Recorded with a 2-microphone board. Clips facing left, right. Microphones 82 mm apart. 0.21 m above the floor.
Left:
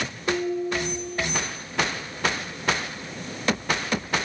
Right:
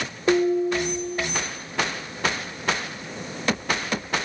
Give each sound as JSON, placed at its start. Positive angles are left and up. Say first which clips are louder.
{"t": 0.3, "sound": "dishes clattering", "louder": "right 6 dB", "side_deg": -30, "distance_m": 2.5}